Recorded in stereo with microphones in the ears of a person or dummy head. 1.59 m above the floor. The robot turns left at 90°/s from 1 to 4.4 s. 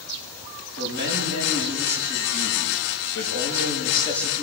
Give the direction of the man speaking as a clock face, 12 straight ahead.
2 o'clock.